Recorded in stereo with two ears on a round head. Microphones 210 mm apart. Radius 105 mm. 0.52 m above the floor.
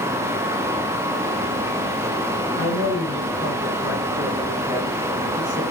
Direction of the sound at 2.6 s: 45° right (ahead or behind).